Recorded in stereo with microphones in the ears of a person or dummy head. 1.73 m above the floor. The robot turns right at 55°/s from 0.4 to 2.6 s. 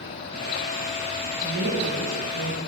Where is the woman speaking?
135° right, 1.1 m; by 2.6 s 70° right, 1.1 m.